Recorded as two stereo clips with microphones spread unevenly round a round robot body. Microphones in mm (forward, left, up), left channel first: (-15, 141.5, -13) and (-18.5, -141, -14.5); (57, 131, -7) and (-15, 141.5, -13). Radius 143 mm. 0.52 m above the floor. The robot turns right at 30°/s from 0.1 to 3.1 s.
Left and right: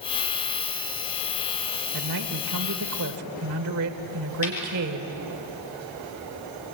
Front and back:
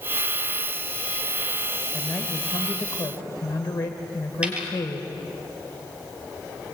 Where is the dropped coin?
95° left, 5 m.